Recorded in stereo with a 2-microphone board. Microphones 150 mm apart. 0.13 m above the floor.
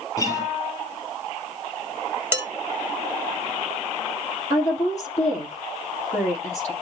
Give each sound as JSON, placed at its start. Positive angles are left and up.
{"t": 0.2, "sound": "a guitar", "side_deg": 30, "distance_m": 4.0}
{"t": 2.3, "sound": "dishes clattering", "side_deg": -15, "distance_m": 1.7}
{"t": 4.5, "sound": "a woman speaking", "side_deg": 55, "distance_m": 4.0}